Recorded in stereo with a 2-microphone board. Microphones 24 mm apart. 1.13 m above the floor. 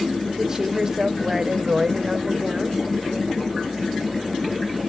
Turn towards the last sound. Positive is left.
turn(degrees=-20)  # may be behind; listen again after turning